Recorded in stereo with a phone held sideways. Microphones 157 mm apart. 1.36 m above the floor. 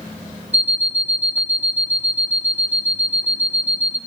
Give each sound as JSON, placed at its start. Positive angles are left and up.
{"t": 0.5, "sound": "an alarm clock", "side_deg": -10, "distance_m": 0.8}